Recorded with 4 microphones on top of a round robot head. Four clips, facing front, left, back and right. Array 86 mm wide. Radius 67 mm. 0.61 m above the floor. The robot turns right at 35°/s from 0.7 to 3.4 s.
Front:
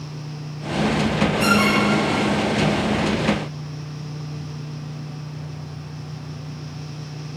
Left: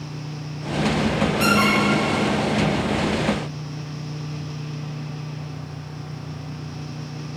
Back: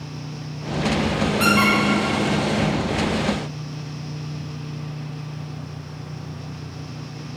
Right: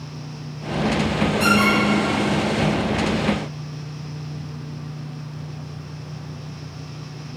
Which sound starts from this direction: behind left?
A squeak, at 1.4 s.